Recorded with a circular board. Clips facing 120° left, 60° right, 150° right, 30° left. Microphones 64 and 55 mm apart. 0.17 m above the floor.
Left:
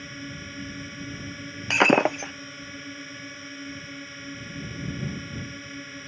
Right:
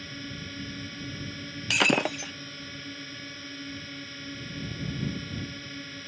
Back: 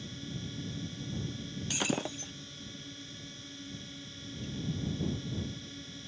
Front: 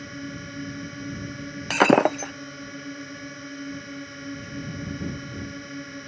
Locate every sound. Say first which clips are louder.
0.0 s a drone: left 2 dB, front 7 dB; 45° left
1.7 s breaking glass: left 6 dB, front 17 dB; 55° left